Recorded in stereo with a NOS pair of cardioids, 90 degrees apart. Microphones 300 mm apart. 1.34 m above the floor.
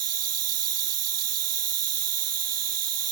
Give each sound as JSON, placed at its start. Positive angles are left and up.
{"t": 0.0, "sound": "an insect", "azimuth_deg": -55}